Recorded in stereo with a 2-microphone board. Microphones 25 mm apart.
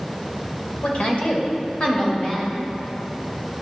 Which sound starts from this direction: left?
A woman speaking, at 0.8 s.